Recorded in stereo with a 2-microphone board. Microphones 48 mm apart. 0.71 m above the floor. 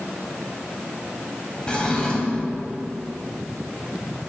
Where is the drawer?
25° left (ahead or behind), 1.4 m.